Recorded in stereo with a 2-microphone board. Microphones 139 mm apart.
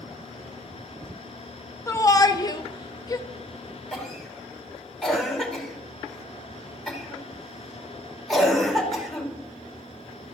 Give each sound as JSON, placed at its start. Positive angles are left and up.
{"t": 1.9, "sound": "a shout", "side_deg": 20, "distance_m": 0.6}
{"t": 3.9, "sound": "a cough", "side_deg": 0, "distance_m": 2.5}